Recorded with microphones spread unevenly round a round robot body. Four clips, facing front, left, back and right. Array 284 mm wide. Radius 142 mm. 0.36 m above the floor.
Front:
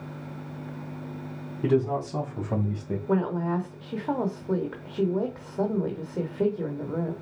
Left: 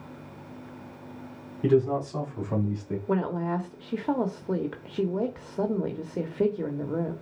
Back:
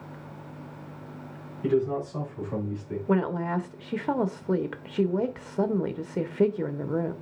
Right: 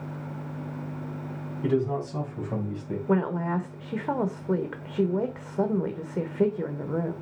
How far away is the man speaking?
About 3 m.